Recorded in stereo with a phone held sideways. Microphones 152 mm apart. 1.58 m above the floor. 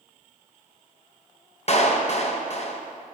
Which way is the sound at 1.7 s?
45° left (ahead or behind).